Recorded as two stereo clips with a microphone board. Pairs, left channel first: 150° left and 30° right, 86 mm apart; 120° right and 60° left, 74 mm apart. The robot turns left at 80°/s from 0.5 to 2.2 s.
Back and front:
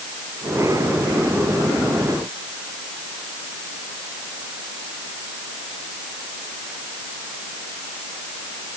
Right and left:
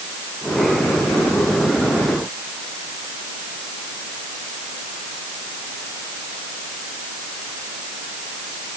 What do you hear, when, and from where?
Only background noise.